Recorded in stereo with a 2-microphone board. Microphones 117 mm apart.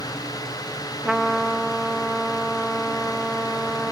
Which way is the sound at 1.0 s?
Centre (ahead or behind).